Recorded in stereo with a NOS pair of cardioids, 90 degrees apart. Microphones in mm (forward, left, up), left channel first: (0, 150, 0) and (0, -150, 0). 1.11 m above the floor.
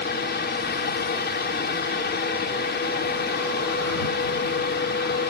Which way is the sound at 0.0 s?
35° left.